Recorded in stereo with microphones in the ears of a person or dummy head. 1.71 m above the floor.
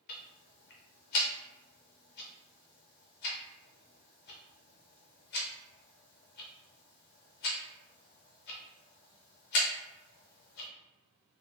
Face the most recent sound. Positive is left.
turn(degrees=50)  # may be behind; listen again after turning